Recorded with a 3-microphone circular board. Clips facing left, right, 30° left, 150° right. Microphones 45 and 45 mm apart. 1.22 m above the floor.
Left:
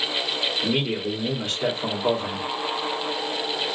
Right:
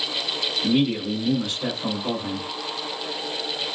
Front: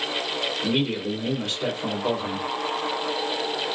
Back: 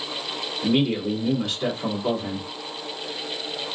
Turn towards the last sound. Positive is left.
turn(degrees=135)